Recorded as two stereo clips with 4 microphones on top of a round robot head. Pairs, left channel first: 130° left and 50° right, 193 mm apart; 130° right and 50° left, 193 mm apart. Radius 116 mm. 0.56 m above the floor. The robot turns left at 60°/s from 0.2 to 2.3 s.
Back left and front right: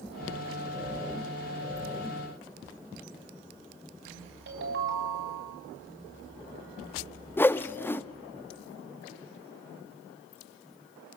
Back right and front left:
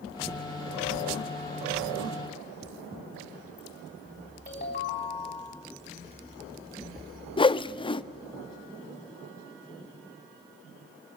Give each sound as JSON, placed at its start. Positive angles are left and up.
{"t": 4.5, "sound": "a ringtone", "azimuth_deg": -75, "distance_m": 3.5}
{"t": 7.4, "sound": "a whoosh", "azimuth_deg": -160, "distance_m": 0.7}